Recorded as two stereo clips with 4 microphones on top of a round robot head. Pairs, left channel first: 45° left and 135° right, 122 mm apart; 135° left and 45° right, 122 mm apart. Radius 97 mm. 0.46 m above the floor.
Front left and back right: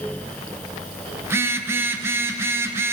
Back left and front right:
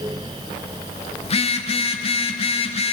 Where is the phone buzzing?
155° left, 0.6 m.